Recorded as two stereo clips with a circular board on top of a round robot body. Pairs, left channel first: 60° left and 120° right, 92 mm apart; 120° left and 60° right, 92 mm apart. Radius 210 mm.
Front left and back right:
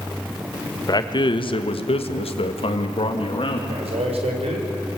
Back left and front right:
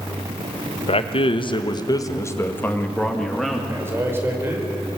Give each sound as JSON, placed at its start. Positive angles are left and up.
{"t": 0.9, "sound": "a man speaking", "azimuth_deg": 110, "distance_m": 1.8}
{"t": 3.7, "sound": "a man speaking", "azimuth_deg": -125, "distance_m": 5.0}